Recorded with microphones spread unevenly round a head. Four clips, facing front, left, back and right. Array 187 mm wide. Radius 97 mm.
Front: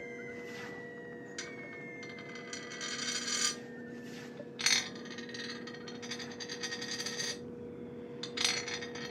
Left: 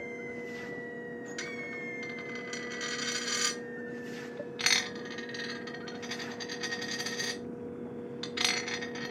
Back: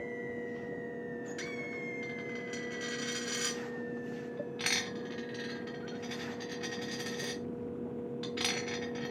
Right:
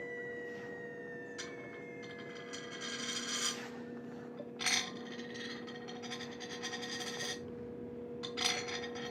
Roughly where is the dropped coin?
Left.